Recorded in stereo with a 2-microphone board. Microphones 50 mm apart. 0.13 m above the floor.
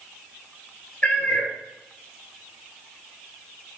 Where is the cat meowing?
25° left (ahead or behind), 1.0 m.